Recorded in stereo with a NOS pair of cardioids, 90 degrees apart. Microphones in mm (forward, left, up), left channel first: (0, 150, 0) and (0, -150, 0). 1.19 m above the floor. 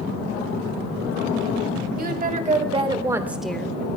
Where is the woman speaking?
30° right, 2 m; by 3.7 s 10° left, 1.2 m.